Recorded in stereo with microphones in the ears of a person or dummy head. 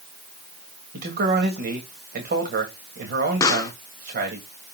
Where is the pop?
15° left (ahead or behind), 0.8 m.